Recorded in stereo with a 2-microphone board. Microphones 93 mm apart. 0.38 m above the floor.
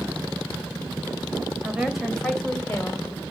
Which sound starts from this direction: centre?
A woman speaking, at 1.6 s.